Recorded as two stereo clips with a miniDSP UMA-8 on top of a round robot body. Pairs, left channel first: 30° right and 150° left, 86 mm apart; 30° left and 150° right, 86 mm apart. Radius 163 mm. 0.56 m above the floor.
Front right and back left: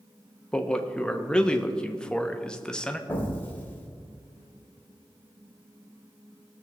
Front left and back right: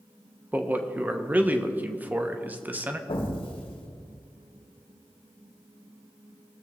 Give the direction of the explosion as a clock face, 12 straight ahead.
11 o'clock.